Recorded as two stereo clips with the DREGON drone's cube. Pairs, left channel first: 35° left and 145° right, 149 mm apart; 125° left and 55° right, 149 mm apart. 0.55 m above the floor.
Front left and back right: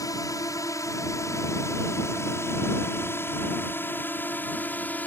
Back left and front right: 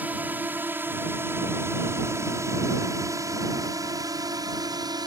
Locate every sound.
0.0 s a drone: 5° left; by 5.1 s 35° right